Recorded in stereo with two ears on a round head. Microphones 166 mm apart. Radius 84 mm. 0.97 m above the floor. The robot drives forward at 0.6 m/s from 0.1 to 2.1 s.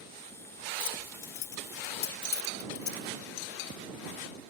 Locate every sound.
0.8 s keys jangling: 75° left (ahead or behind); by 3.1 s 60° left (ahead or behind)